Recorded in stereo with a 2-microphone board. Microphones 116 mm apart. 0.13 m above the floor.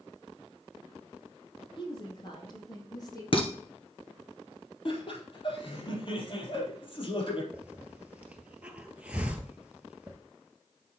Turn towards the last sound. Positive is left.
turn(degrees=-10)  # may be behind; listen again after turning